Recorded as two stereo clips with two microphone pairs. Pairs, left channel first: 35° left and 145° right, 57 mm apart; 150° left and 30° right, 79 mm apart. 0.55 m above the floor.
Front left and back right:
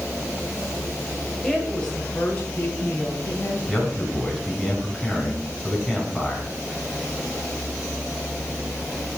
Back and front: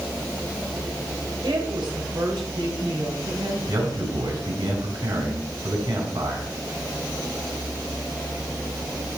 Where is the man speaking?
50° right, 4 m.